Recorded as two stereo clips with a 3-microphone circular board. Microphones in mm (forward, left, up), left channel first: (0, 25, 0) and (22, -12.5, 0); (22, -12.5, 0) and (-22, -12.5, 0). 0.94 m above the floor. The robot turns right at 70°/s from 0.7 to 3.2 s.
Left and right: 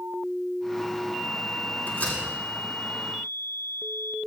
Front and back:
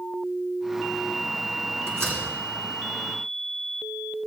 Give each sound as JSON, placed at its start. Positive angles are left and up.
{"t": 1.9, "sound": "a door slam", "azimuth_deg": 165, "distance_m": 8.0}